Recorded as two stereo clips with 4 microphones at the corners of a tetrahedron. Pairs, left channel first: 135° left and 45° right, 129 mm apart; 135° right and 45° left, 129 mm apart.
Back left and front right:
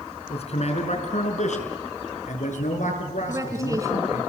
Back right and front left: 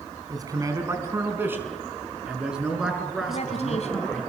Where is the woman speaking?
105° right, 4.5 m.